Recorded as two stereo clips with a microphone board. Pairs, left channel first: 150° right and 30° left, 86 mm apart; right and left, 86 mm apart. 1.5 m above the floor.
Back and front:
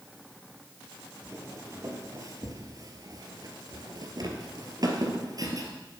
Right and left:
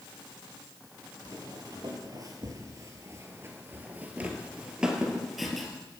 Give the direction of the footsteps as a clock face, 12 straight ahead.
9 o'clock.